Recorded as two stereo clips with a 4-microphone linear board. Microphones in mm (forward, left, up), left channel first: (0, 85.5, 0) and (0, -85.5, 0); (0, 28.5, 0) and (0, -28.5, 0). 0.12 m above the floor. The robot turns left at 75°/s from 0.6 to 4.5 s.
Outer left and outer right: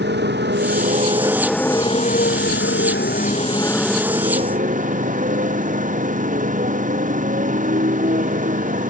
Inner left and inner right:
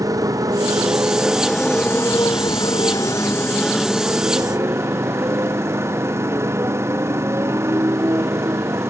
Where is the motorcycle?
110° right; by 8.9 s 45° right.